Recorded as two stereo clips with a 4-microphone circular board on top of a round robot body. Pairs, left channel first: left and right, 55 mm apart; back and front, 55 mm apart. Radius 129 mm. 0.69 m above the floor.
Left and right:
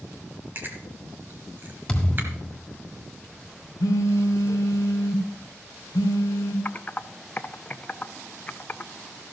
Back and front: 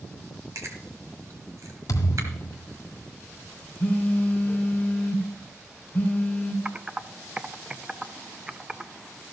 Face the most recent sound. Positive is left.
turn(degrees=60)